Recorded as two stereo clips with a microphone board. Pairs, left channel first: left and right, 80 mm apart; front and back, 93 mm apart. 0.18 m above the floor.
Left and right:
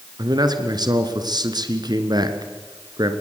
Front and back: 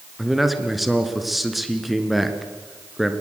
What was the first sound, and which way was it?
A man speaking, 90° right.